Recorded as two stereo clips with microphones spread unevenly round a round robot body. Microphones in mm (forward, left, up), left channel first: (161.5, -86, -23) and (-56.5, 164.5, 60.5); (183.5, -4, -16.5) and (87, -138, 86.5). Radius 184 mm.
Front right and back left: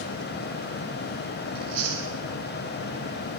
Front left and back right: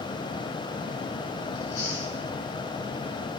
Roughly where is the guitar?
No guitar in this recording.